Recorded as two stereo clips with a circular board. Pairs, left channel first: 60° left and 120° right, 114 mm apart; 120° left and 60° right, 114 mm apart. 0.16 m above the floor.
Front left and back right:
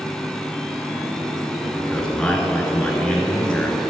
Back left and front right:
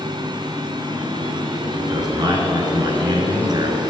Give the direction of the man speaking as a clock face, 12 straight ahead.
1 o'clock.